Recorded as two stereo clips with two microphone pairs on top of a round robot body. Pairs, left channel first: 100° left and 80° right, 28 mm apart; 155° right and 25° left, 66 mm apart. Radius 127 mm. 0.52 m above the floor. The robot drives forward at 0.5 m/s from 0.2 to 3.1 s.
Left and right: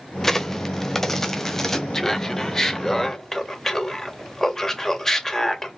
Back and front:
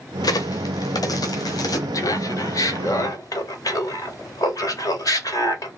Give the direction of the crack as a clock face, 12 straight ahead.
6 o'clock.